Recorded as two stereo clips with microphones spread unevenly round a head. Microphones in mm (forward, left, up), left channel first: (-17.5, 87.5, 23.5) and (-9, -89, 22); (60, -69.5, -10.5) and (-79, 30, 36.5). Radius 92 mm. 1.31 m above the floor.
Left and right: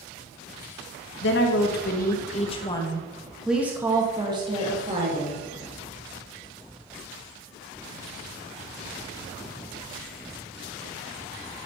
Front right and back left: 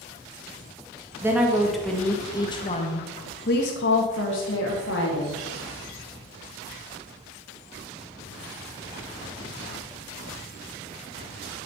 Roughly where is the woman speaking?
Ahead left.